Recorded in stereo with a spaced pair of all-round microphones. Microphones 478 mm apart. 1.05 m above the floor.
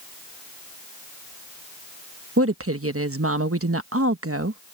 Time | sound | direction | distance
2.4 | a woman speaking | 25° right (ahead or behind) | ?